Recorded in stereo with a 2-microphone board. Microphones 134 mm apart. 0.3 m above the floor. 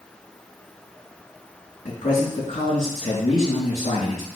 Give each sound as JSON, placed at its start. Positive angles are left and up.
{"t": 1.9, "sound": "a man speaking", "side_deg": 65, "distance_m": 3.5}